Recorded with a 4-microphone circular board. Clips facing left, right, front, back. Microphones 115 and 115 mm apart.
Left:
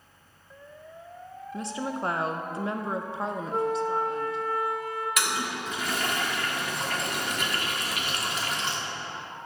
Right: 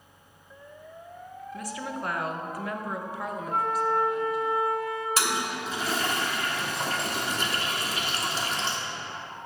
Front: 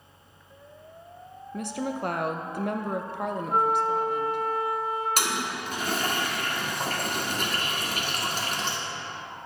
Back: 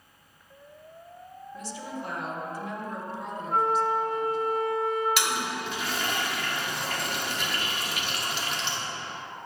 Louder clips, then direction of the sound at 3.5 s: Right 1 dB, even; 80° right.